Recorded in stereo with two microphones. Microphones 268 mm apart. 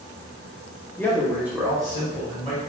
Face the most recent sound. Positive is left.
turn(degrees=-25)  # may be behind; listen again after turning